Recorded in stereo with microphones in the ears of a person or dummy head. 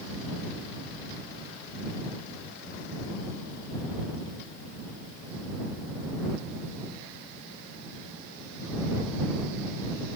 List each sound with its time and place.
Only background noise.